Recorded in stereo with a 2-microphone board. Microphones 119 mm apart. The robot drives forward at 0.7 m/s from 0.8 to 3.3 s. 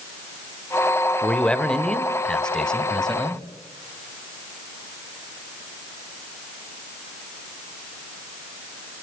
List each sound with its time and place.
1.2 s a man speaking: 10° left (ahead or behind), 1.5 m; by 3.4 s 5° left (ahead or behind), 2.5 m